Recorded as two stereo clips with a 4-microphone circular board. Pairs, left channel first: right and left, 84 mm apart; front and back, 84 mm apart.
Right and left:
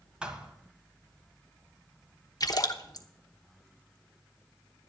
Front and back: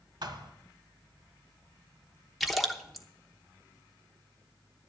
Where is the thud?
165° left, 1.5 m.